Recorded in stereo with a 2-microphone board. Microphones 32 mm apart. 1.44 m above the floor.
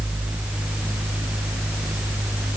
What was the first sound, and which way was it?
Only background noise.